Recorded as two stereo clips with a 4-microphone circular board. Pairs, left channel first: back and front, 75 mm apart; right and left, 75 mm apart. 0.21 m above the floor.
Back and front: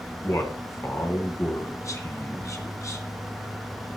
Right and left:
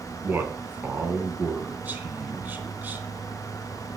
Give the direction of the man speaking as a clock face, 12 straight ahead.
7 o'clock.